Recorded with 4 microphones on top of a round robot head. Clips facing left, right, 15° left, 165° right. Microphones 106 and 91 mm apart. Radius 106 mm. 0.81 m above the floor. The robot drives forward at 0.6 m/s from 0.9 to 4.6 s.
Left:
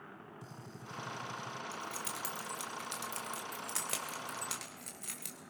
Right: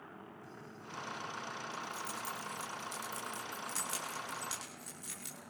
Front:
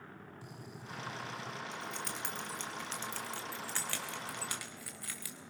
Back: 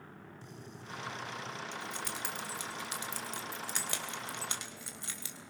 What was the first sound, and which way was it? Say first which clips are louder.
A gunshot: even, back 1 dB; 95° left.